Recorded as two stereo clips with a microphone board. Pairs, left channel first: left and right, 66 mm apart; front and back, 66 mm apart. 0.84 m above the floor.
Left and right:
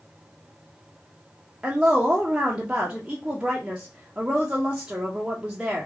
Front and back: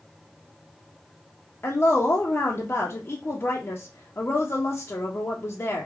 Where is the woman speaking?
20° right, 0.6 m.